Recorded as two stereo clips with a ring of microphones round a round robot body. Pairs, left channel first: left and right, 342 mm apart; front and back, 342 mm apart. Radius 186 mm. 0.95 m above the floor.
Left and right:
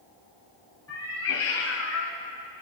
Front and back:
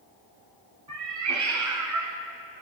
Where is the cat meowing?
145° left, 1.9 m.